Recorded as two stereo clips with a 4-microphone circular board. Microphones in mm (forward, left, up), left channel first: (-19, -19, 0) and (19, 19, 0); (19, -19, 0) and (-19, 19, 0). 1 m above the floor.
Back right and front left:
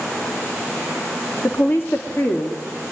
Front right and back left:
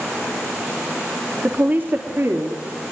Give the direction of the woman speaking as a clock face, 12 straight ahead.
6 o'clock.